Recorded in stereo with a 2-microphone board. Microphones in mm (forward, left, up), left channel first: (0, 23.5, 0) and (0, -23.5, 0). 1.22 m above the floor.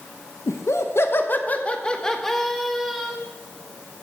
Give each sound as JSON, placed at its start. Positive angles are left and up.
{"t": 0.5, "sound": "laughter", "side_deg": 85, "distance_m": 1.0}